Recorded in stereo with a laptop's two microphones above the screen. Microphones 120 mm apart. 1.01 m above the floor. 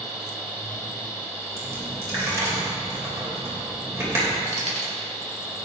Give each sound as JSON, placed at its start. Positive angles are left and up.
{"t": 0.0, "sound": "a machine running", "side_deg": -10, "distance_m": 3.0}
{"t": 1.6, "sound": "a dropped coin", "side_deg": -25, "distance_m": 2.5}
{"t": 4.5, "sound": "keys jangling", "side_deg": -75, "distance_m": 2.5}